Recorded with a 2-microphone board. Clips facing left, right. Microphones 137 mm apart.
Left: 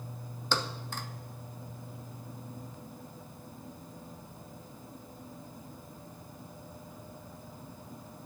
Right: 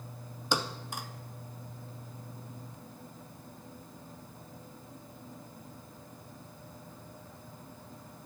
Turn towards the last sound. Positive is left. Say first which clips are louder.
# right 1 dB
turn(degrees=-15)  # may be behind; listen again after turning